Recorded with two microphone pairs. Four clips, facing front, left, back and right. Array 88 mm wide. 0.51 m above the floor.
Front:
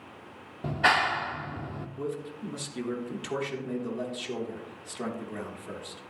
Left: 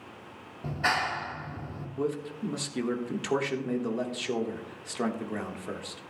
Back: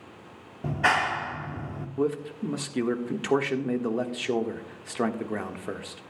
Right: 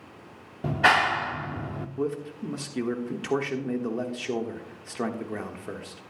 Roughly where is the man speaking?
Behind.